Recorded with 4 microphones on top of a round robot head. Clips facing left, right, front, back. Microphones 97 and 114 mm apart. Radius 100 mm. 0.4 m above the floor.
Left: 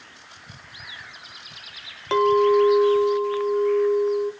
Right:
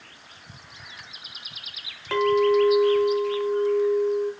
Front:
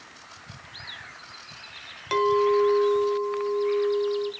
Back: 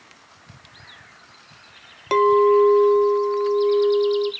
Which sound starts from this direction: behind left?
A clink, at 2.1 s.